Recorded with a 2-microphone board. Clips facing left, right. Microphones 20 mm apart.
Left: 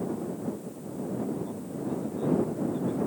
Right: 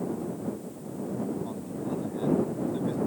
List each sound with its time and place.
1.4 s a man speaking: 25° right (ahead or behind)